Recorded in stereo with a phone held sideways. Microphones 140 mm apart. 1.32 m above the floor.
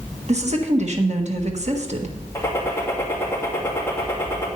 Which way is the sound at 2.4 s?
20° left (ahead or behind).